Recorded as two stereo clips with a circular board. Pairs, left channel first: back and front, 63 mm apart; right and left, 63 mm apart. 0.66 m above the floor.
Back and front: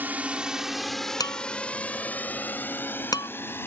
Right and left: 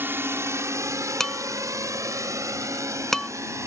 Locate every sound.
0.0 s a drone: 50° left; by 3.7 s 130° left
1.2 s dishes clattering: 175° right